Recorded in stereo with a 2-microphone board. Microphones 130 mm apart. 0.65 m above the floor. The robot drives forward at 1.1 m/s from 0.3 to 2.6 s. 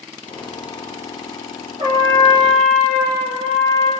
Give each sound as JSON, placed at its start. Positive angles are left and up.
{"t": 1.8, "sound": "a trumpet", "side_deg": -50, "distance_m": 3.5}